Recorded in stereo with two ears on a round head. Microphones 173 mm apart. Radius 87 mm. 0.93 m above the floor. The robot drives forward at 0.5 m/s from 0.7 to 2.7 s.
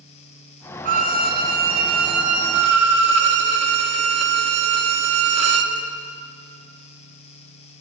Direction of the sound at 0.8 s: 45° right (ahead or behind).